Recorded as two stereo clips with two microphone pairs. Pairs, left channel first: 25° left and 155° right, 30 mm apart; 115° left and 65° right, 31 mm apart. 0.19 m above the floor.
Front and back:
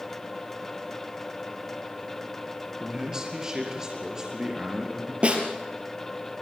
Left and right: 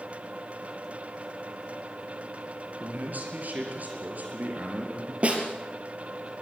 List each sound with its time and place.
2.8 s a man speaking: 90° right, 4 m
5.2 s a snare drum: 110° right, 3.5 m